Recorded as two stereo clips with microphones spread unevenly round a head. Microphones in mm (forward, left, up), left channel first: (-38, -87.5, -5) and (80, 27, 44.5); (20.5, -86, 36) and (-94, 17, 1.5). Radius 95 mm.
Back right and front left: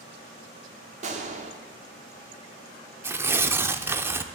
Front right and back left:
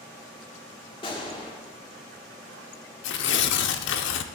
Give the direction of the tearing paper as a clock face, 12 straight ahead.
1 o'clock.